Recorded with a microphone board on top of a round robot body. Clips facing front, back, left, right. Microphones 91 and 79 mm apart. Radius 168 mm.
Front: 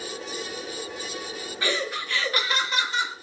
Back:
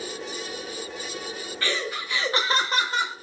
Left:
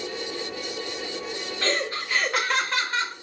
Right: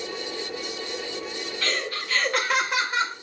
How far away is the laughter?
About 0.8 m.